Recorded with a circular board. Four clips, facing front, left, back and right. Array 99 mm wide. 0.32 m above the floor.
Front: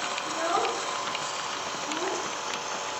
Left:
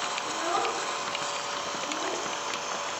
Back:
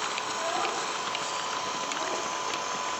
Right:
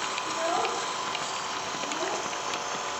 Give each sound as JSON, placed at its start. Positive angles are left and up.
{"t": 0.2, "sound": "a child speaking", "azimuth_deg": 30, "distance_m": 2.5}